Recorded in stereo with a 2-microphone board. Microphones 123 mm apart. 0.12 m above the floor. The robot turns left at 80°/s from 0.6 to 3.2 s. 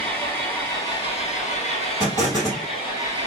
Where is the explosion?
35° left, 1.9 m; by 2.7 s 15° right, 1.9 m.